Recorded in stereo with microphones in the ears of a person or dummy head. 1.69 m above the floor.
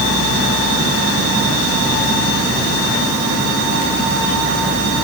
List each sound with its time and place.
Only background noise.